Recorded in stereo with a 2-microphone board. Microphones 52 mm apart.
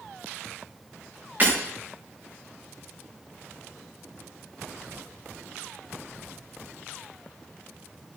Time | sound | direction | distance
1.4 | breaking glass | 40° right (ahead or behind) | 5.5 m